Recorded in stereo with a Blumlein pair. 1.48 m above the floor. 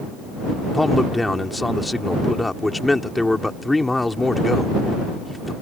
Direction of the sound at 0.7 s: 5° left.